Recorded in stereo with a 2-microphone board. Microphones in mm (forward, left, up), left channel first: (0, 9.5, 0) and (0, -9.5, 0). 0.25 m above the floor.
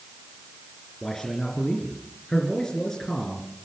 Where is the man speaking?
25° left (ahead or behind), 3.5 m.